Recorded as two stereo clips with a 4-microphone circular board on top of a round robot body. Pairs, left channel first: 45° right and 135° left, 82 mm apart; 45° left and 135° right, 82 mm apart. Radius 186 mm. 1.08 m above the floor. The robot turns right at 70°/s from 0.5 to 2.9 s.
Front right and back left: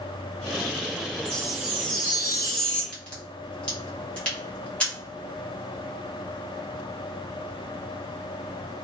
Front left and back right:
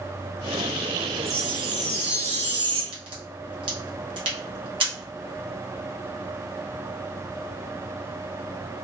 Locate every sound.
1.2 s a chime: 140° left, 1.4 m; by 2.8 s 110° right, 1.4 m
2.9 s a crack: 120° right, 0.7 m